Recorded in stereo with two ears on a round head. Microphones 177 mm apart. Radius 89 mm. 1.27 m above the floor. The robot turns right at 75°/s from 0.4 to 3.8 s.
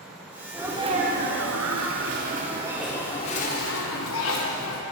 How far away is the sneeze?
About 0.7 m.